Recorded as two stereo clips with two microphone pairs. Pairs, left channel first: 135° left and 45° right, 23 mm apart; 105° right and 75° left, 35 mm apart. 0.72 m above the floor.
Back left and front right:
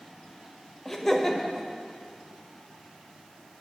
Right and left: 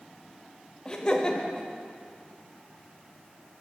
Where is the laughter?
155° right, 0.8 m.